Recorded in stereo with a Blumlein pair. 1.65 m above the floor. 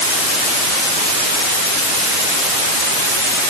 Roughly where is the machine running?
No machine running in this recording.